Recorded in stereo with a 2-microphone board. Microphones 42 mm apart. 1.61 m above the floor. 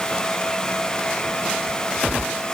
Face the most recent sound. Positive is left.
No sound to turn to.